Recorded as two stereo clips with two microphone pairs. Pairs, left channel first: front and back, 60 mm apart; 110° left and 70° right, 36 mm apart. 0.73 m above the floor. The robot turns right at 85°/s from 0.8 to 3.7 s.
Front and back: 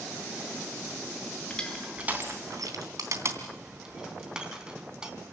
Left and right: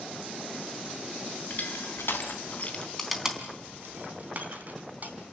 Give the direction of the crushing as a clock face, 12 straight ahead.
10 o'clock.